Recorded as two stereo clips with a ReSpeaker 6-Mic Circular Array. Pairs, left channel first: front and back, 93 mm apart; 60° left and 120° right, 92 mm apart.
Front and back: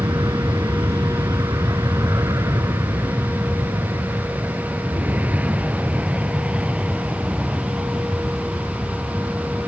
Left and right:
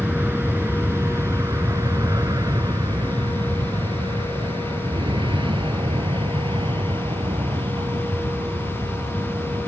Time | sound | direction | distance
0.0 | an aircraft | straight behind | ?